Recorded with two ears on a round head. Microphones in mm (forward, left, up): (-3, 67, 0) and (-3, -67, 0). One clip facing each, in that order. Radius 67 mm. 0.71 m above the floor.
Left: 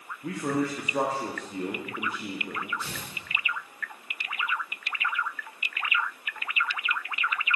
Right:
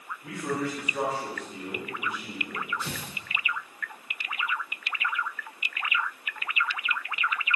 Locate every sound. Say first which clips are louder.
0.2 s a man speaking: left 3 dB; 35° left (ahead or behind), 1.3 m
2.8 s tearing paper: right 2 dB; 65° right (ahead or behind), 1.6 m